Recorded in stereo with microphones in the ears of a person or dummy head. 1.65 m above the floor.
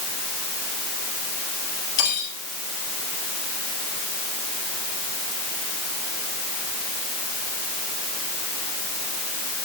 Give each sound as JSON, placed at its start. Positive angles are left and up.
{"t": 2.0, "sound": "cutlery clinking", "side_deg": 45, "distance_m": 3.5}